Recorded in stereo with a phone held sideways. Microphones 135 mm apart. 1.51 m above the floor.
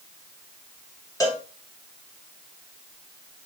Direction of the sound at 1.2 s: 25° left (ahead or behind).